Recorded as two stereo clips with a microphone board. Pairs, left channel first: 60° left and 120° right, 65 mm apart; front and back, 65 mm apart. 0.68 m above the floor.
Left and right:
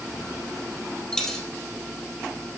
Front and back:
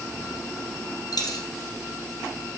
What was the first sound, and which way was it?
A dropped coin, 25° right.